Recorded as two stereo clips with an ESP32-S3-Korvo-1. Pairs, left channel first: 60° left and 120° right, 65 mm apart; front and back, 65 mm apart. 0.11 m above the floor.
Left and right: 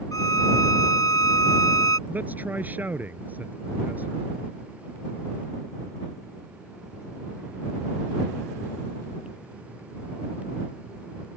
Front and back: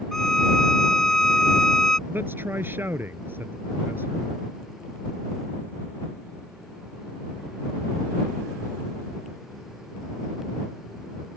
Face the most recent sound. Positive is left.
turn(degrees=-160)